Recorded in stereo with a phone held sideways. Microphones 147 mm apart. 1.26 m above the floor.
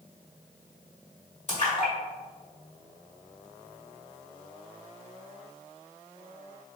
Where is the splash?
55° left (ahead or behind), 1.8 m.